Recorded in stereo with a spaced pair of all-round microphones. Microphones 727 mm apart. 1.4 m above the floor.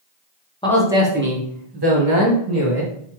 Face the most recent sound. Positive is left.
turn(degrees=-50)  # may be behind; listen again after turning